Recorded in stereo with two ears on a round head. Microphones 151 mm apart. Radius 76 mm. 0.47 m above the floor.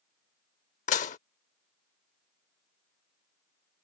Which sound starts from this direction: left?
Dishes clattering, at 0.9 s.